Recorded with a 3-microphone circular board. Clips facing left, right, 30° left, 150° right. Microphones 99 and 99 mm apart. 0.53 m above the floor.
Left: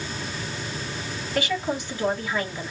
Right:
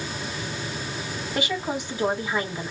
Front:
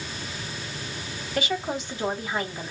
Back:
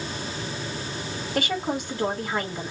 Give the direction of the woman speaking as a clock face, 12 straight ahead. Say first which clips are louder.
Left 2 dB, back 1 dB; 5 o'clock.